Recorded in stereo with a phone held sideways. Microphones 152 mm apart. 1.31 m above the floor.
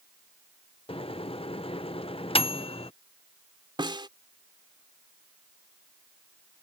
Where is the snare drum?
30° right (ahead or behind).